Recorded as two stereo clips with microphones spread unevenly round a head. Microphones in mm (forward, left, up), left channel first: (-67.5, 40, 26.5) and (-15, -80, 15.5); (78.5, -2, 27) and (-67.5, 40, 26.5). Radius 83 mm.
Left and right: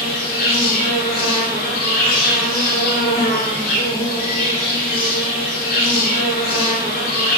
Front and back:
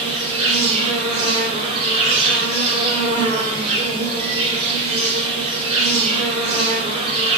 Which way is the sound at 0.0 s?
115° left.